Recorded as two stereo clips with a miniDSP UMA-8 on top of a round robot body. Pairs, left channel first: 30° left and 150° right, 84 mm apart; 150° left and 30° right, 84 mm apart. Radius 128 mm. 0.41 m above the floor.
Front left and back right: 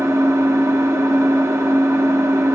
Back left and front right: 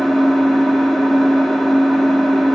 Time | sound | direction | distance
0.0 | an engine running | 125° right | 1.1 m